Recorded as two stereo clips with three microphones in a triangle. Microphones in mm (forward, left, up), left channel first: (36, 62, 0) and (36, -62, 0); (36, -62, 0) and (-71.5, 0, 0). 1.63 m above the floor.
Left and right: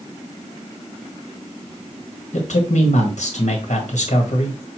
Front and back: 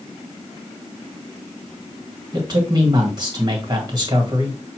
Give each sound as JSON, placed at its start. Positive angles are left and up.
{"t": 2.3, "sound": "a man speaking", "azimuth_deg": 100, "distance_m": 1.7}